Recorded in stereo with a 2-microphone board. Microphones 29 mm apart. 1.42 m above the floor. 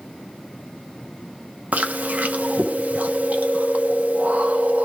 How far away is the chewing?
About 1.0 m.